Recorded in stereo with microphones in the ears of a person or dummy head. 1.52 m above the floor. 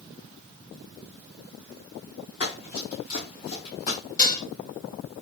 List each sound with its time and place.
2.4 s running footsteps: 35° left (ahead or behind), 2 m; by 4.0 s 50° left (ahead or behind), 3 m
4.2 s dishes clattering: 20° left (ahead or behind), 1.3 m